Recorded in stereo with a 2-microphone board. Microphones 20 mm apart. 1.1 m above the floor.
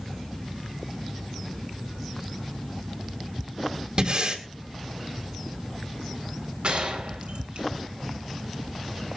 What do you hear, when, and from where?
4.0 s breathing: 55° right (ahead or behind), 3 m
6.6 s a gunshot: 85° right, 4.5 m